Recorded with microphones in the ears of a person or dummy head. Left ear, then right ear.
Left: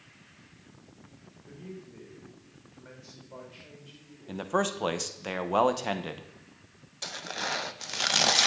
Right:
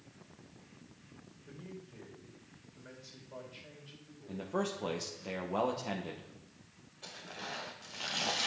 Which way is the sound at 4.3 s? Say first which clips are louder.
Left 8 dB; 50° left (ahead or behind).